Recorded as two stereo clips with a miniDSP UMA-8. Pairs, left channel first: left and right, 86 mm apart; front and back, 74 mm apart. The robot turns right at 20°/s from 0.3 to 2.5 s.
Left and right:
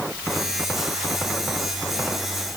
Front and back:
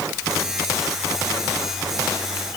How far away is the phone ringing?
No phone ringing in this recording.